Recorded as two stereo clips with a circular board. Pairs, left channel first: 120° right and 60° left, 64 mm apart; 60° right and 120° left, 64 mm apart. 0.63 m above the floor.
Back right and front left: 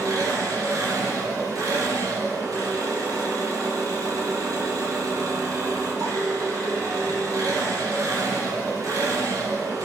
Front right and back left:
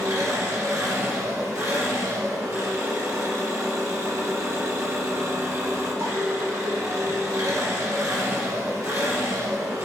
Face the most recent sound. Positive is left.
turn(degrees=85)